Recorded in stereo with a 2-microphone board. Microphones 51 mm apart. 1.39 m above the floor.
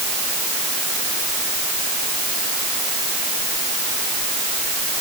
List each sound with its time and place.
Only background noise.